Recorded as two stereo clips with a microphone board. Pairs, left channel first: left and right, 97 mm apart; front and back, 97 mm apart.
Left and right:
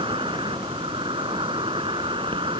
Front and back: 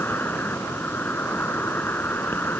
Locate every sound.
0.0 s an insect: 70° right